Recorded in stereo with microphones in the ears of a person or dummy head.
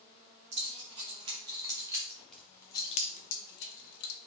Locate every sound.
0.5 s keys jangling: 35° right (ahead or behind), 1.7 m; by 4.1 s 75° left (ahead or behind), 1.1 m